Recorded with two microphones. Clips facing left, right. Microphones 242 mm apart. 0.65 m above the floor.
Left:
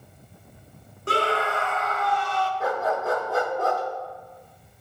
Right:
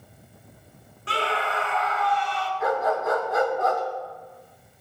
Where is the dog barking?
35° left (ahead or behind), 2 m.